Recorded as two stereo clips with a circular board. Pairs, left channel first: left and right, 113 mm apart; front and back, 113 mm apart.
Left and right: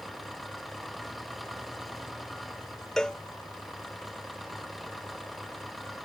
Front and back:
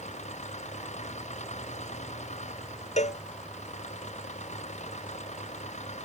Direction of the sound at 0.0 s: Straight ahead.